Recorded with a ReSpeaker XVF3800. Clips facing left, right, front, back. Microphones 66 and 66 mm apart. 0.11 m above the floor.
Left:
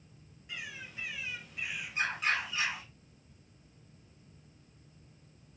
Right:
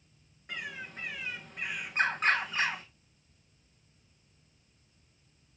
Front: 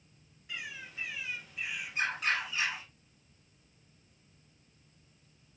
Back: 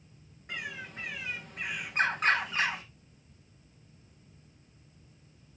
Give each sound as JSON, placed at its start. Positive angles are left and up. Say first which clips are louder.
{"t": 0.5, "sound": "a bird", "louder": "right 4 dB, back 4 dB", "azimuth_deg": -135, "distance_m": 1.6}